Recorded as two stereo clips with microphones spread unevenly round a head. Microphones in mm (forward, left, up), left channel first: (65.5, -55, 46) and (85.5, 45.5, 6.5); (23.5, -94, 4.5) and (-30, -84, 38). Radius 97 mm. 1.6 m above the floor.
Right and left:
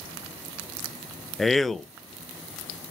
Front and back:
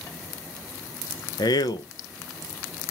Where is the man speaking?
15° right, 0.6 m.